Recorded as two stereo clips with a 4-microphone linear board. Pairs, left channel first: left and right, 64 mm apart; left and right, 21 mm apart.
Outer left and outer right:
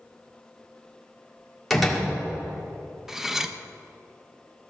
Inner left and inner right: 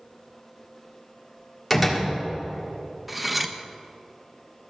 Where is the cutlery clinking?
5° right (ahead or behind), 0.6 m.